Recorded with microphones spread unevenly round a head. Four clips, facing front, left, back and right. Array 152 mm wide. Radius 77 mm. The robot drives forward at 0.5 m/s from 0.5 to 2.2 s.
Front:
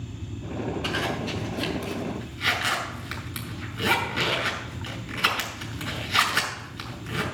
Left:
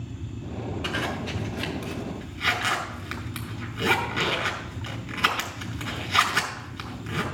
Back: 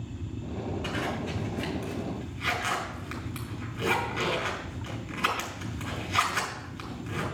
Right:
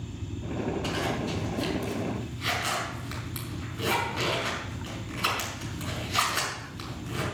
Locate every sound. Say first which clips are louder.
0.8 s a zipper: even, front 3 dB; 60° left, 5 m; by 7.2 s 70° left, 4.5 m